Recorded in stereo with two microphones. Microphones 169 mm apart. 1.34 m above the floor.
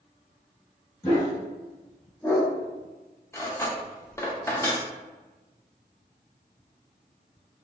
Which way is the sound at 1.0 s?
15° left (ahead or behind).